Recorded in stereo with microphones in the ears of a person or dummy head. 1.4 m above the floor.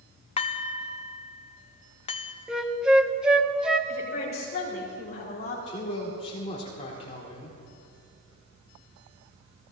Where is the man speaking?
30° left (ahead or behind), 3.5 m.